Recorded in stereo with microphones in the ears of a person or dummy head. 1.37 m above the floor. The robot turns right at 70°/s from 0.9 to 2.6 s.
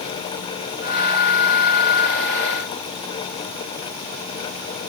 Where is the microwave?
I don't hear a microwave.